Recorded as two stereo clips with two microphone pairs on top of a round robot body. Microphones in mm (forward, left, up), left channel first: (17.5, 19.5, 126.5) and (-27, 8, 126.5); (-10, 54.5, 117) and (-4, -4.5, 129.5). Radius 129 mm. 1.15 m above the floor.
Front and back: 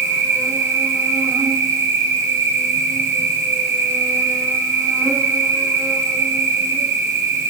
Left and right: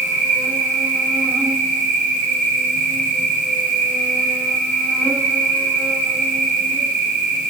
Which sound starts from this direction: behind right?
An insect, at 0.0 s.